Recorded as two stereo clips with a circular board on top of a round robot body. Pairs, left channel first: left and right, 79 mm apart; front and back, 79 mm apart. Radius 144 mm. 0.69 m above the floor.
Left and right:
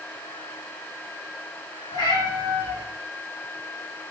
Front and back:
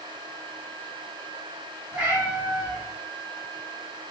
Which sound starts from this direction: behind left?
A cat meowing, at 1.9 s.